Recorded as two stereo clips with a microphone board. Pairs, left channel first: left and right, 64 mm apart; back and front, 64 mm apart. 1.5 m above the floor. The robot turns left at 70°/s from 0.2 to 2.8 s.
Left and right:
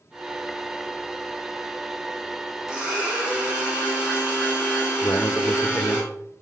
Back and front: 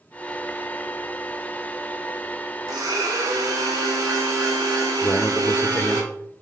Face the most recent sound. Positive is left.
turn(degrees=135)